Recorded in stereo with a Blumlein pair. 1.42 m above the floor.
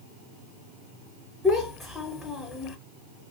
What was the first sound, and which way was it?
A child speaking, 10° left.